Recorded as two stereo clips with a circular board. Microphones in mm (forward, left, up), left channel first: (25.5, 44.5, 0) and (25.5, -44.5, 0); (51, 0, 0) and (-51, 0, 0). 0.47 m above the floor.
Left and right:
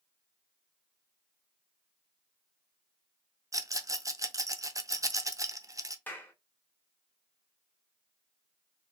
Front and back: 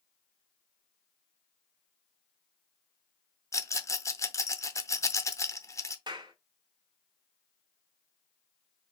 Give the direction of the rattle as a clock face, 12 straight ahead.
2 o'clock.